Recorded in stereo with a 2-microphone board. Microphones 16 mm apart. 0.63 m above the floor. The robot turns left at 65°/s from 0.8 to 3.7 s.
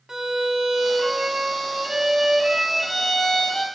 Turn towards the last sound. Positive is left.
turn(degrees=145)